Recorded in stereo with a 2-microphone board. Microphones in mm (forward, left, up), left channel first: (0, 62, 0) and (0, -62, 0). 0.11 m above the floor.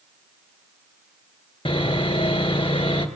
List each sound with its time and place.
1.6 s sawing: 45° left (ahead or behind), 1.9 m